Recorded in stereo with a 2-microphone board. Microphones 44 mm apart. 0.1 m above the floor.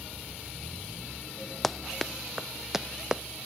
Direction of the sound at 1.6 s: 5° left (ahead or behind).